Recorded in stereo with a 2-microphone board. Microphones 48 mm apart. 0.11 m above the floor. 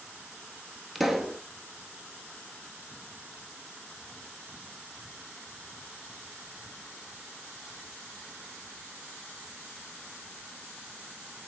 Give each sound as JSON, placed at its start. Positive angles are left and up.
{"t": 0.9, "sound": "a pop", "side_deg": -5, "distance_m": 1.0}